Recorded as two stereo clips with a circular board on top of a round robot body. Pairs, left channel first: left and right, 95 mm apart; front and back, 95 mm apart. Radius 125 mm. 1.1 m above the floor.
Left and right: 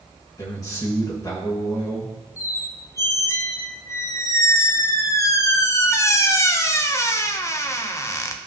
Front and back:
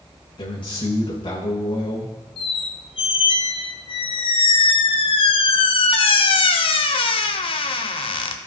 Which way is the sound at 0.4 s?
35° left.